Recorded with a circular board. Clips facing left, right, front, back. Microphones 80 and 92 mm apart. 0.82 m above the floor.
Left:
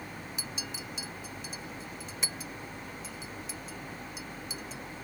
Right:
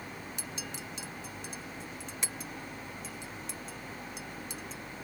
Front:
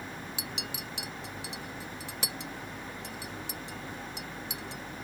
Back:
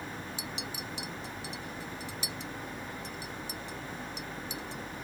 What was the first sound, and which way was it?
A clink, straight ahead.